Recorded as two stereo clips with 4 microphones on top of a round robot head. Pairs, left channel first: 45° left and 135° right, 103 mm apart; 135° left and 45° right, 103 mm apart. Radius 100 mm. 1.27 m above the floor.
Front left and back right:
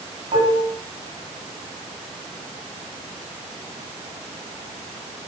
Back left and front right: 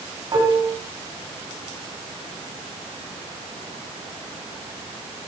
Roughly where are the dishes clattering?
Right.